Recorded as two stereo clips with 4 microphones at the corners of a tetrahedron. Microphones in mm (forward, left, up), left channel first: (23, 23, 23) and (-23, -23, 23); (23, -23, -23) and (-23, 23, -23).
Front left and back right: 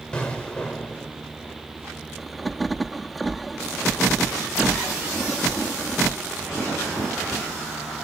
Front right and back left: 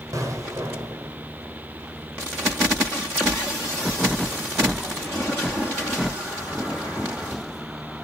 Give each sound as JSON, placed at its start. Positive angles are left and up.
{"t": 0.1, "sound": "an explosion", "azimuth_deg": 120, "distance_m": 1.4}